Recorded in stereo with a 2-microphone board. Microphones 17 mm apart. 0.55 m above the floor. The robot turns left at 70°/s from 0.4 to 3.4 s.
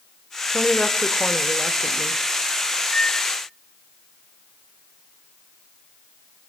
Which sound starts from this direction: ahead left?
A woman speaking, at 0.5 s.